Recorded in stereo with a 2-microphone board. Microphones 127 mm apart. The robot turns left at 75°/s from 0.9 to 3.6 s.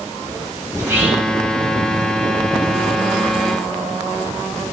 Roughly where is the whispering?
Behind right.